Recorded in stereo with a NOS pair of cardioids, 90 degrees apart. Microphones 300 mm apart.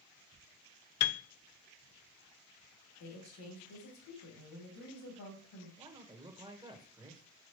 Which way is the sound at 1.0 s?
70° left.